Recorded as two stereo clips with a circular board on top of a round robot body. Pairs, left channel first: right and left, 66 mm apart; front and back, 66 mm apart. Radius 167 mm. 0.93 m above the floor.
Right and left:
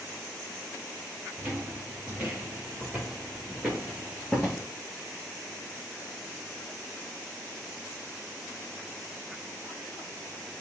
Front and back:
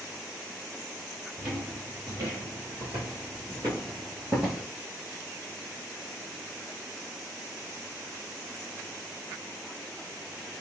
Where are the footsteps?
150° left, 2.0 m; by 4.6 s 60° right, 0.9 m.